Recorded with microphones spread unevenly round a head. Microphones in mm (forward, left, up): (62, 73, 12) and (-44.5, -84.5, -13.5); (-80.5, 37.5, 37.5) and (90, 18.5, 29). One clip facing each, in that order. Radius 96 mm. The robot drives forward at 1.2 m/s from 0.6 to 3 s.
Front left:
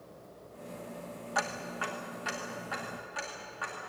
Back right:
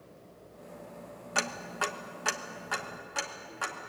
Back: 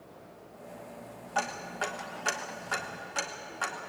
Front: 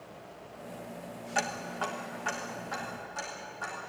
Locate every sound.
1.4 s ticking: 75° right, 1.1 m; by 3.9 s 155° right, 2 m